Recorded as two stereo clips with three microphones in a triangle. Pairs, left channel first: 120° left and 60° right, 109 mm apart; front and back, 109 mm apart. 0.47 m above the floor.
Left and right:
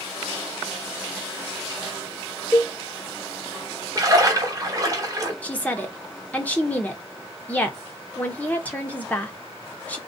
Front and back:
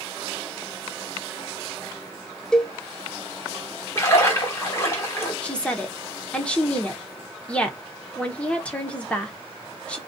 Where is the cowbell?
75° left, 0.5 m.